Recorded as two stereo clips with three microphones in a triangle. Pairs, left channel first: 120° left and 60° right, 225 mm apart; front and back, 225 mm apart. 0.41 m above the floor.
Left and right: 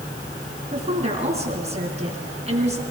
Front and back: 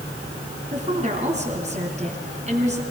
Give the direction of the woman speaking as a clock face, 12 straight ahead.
4 o'clock.